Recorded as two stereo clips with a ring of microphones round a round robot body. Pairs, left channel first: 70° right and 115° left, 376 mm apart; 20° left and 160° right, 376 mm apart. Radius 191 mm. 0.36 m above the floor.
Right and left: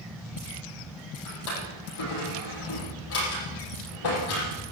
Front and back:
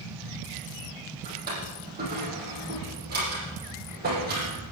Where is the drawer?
90° right, 7.5 m.